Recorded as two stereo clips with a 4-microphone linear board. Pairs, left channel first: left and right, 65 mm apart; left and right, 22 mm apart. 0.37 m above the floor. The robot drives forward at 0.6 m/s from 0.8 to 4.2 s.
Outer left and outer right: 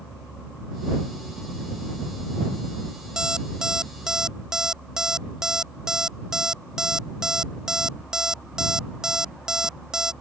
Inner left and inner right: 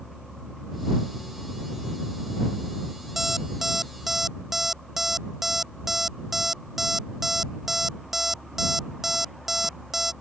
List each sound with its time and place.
3.2 s an alarm clock: 10° right (ahead or behind)